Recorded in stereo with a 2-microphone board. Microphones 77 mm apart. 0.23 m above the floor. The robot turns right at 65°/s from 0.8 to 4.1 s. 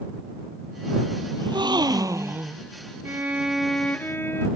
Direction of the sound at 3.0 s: 35° right.